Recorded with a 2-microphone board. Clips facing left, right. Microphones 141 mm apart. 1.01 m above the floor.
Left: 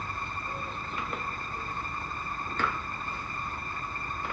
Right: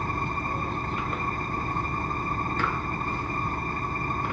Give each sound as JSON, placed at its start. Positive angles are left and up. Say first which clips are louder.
{"t": 0.0, "sound": "an engine running", "louder": "right 7 dB", "side_deg": -55}